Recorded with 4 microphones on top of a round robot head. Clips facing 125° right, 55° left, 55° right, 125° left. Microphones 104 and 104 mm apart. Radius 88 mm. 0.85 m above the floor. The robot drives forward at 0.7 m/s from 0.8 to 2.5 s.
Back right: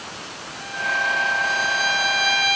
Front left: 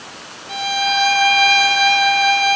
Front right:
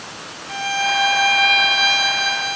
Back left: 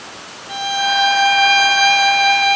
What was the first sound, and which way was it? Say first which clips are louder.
A violin: front left 8 dB, back left 3 dB; 50° left.